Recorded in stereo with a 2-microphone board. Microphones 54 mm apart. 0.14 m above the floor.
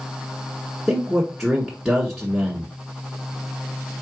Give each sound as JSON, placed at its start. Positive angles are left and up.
{"t": 0.9, "sound": "a man speaking", "side_deg": 0, "distance_m": 1.5}